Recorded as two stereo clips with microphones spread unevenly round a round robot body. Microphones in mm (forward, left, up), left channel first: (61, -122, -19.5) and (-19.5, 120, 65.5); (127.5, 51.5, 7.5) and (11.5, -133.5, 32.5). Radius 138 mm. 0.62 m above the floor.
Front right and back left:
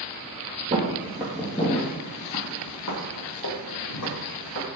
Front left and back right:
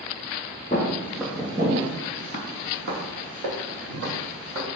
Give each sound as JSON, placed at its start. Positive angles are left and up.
{"t": 0.7, "sound": "footsteps", "azimuth_deg": 125, "distance_m": 0.8}